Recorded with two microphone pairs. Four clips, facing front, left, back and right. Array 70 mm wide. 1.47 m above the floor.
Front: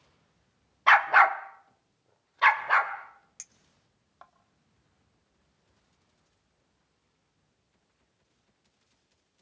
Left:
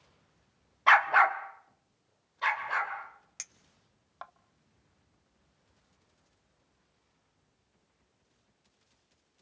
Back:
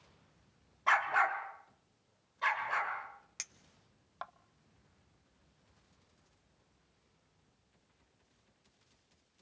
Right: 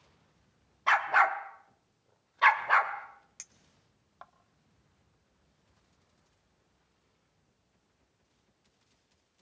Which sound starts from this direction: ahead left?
A dog barking, at 0.9 s.